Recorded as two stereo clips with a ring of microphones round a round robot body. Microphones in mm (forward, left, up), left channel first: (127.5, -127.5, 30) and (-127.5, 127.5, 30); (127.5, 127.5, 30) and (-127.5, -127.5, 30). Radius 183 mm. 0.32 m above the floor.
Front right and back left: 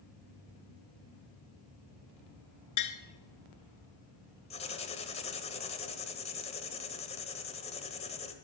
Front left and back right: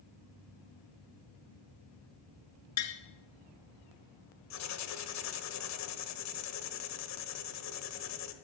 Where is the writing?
25° left, 1.2 m.